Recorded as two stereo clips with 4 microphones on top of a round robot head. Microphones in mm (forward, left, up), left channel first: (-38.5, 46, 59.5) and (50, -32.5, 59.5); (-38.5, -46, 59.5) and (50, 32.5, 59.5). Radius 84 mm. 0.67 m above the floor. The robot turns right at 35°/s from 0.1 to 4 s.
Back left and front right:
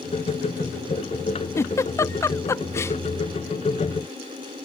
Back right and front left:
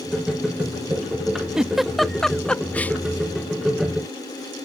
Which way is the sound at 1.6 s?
115° left.